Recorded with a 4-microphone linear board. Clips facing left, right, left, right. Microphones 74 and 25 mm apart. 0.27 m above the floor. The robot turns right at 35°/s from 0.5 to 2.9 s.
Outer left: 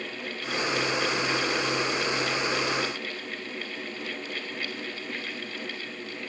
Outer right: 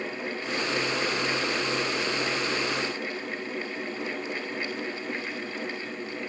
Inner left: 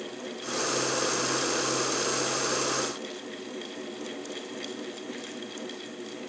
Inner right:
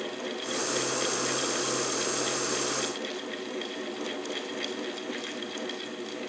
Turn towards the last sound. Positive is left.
No sound to turn to.